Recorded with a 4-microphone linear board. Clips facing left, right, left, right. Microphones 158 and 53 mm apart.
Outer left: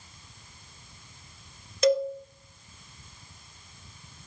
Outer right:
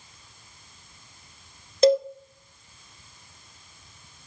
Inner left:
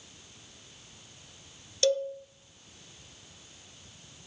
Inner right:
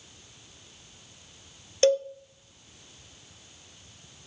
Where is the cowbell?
35° right (ahead or behind), 1.2 m.